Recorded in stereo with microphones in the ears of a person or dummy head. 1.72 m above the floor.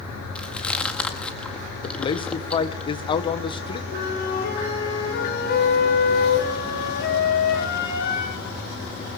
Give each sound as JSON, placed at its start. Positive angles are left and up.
{"t": 0.3, "sound": "chewing", "side_deg": 5, "distance_m": 1.9}
{"t": 1.8, "sound": "a man speaking", "side_deg": 25, "distance_m": 1.6}
{"t": 3.9, "sound": "a flute", "side_deg": 55, "distance_m": 9.0}